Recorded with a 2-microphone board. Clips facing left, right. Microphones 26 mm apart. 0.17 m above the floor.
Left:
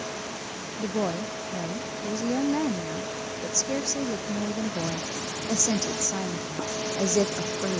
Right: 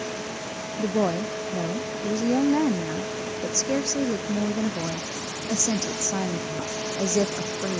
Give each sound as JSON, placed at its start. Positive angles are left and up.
{"t": 0.8, "sound": "a woman speaking", "side_deg": -15}